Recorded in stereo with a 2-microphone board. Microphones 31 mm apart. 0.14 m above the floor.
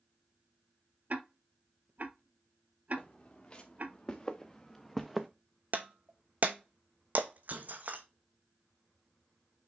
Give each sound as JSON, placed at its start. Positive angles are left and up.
{"t": 1.1, "sound": "ticking", "side_deg": -55, "distance_m": 0.7}
{"t": 3.0, "sound": "footsteps", "side_deg": 40, "distance_m": 2.0}
{"t": 5.7, "sound": "breaking glass", "side_deg": -60, "distance_m": 0.8}